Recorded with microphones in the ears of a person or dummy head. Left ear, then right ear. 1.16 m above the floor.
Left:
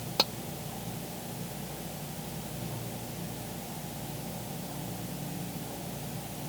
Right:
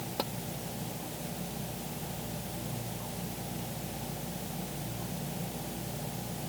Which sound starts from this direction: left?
Tapping, at 0.2 s.